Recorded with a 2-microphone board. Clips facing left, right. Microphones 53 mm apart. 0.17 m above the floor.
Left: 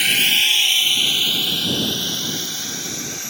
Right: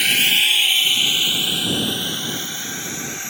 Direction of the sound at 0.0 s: Centre (ahead or behind).